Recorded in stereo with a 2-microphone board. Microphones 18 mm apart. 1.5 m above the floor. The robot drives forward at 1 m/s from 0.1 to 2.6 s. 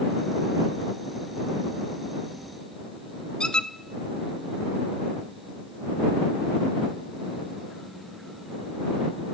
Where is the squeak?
55° left (ahead or behind), 0.8 m.